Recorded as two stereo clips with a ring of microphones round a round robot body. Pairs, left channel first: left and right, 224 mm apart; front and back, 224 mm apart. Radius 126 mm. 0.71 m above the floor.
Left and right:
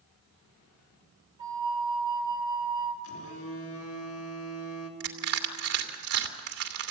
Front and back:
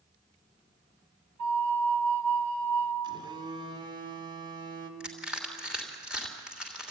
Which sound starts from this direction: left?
A phone buzzing, at 3.0 s.